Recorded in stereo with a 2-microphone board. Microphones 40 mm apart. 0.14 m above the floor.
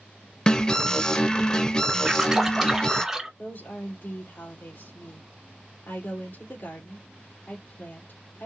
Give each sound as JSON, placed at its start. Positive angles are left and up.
{"t": 0.5, "sound": "an alarm", "side_deg": 20, "distance_m": 0.9}
{"t": 2.0, "sound": "a splash", "side_deg": -10, "distance_m": 1.7}
{"t": 3.4, "sound": "a woman speaking", "side_deg": 60, "distance_m": 3.5}